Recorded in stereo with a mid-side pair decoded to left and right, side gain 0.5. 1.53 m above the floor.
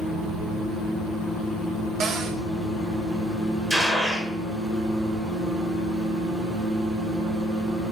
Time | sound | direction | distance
2.0 | a cupboard door | 45° right | 2 m
3.7 | a gunshot | 15° right | 6 m